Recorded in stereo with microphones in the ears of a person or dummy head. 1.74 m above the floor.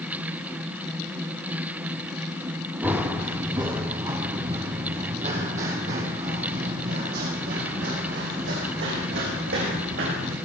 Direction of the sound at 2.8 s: 15° right (ahead or behind).